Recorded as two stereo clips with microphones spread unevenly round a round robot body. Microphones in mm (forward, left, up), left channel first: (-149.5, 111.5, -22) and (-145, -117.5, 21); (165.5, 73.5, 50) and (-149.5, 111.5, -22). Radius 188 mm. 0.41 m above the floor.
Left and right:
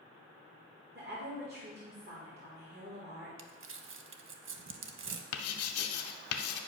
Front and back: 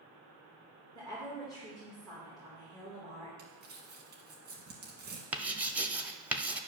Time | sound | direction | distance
0.9 | a woman speaking | 95° right | 1.5 m
3.4 | crumpling | 120° right | 0.7 m
5.3 | writing | 90° left | 0.6 m